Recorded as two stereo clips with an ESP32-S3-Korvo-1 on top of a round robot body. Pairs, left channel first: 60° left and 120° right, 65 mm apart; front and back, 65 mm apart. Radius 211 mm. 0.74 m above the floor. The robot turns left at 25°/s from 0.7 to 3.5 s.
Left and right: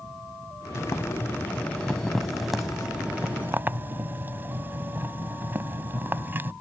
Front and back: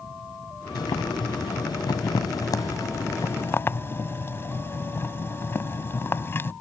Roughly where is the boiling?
Ahead.